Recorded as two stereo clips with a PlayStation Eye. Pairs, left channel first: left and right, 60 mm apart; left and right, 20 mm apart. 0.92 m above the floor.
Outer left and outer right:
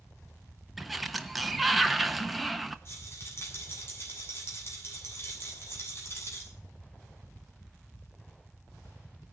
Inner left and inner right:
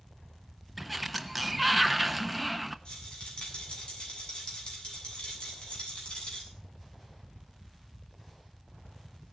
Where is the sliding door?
Centre (ahead or behind), 1.0 m.